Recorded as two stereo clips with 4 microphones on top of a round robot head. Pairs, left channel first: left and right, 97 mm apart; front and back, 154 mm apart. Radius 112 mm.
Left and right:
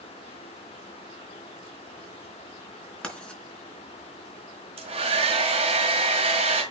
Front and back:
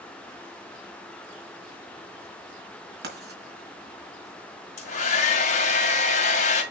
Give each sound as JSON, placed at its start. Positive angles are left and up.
{"t": 3.0, "sound": "writing", "azimuth_deg": 170, "distance_m": 3.5}
{"t": 4.8, "sound": "a hair dryer", "azimuth_deg": -50, "distance_m": 2.0}